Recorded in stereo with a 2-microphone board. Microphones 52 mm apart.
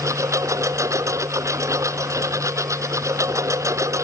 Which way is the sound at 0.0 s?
75° right (ahead or behind).